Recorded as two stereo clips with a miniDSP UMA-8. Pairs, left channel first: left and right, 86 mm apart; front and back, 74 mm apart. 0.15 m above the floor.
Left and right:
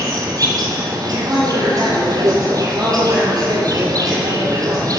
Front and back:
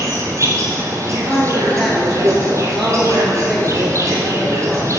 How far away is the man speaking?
About 3 m.